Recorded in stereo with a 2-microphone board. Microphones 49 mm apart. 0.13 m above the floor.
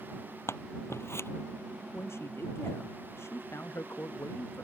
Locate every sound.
0.5 s scissors: 60° left (ahead or behind)
1.9 s a man speaking: 60° left (ahead or behind)